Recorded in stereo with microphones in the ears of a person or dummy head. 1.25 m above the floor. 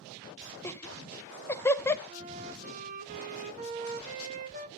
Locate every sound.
0.6 s laughter: 15° left (ahead or behind), 0.7 m
2.1 s a flute: 45° right (ahead or behind), 1.2 m